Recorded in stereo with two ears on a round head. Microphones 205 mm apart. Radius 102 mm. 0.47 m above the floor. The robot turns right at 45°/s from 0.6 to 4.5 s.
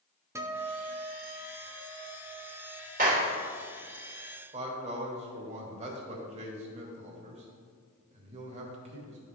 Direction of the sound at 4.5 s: 30° right (ahead or behind).